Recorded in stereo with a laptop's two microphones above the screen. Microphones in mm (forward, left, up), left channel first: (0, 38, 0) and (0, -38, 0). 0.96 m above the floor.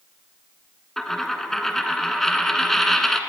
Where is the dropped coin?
5° left (ahead or behind), 1.3 m.